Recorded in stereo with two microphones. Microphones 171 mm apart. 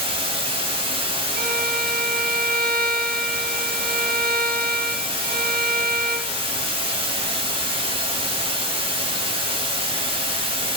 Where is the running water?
30° right (ahead or behind), 0.9 m.